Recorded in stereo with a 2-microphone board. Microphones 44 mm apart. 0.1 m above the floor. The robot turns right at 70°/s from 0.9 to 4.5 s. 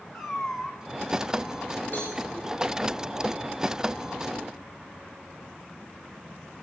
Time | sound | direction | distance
0.1 | a cat meowing | 5° right (ahead or behind) | 3 m
1.9 | a cowbell | 35° left (ahead or behind) | 8 m